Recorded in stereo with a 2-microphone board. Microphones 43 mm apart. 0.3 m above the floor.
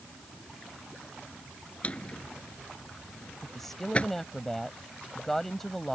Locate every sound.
1.8 s a drawer: 30° left (ahead or behind)
3.4 s a woman speaking: 5° left (ahead or behind)